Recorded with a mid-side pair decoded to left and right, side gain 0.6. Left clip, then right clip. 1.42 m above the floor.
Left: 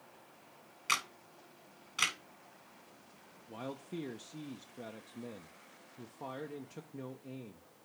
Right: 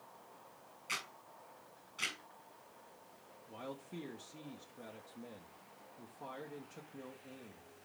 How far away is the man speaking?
About 0.9 m.